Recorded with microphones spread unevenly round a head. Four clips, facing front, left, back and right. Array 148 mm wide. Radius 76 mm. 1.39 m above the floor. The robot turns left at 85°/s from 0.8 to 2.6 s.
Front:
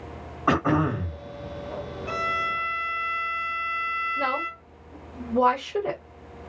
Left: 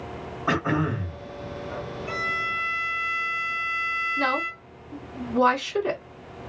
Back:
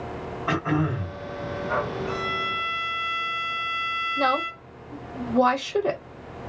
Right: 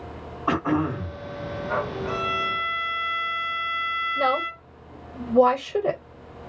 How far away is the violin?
About 0.8 m.